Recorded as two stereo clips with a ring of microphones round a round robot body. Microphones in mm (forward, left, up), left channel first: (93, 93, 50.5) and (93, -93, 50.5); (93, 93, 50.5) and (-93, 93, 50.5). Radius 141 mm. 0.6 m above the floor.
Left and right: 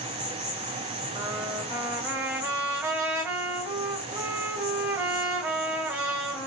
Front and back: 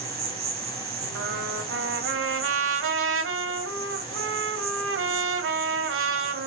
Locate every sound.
0.0 s an insect: 165° right, 5 m
1.1 s a trumpet: 170° right, 2 m